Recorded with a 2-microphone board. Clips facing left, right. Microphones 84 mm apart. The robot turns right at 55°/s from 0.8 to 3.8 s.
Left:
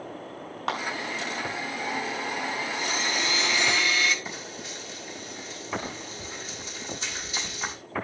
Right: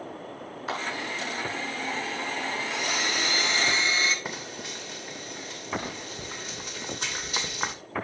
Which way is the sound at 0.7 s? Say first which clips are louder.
Left 3 dB; 75° left (ahead or behind).